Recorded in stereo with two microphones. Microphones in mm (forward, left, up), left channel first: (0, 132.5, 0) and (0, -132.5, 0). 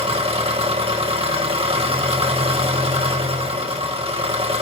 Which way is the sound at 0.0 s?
20° right (ahead or behind).